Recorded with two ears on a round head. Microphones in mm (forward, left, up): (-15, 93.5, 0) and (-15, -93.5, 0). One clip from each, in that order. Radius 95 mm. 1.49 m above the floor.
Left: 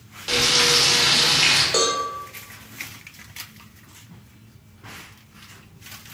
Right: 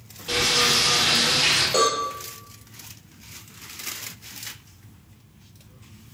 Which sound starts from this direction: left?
Frying, at 0.3 s.